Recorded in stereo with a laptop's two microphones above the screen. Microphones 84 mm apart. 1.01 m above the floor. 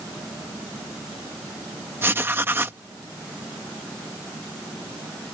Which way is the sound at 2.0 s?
30° right (ahead or behind).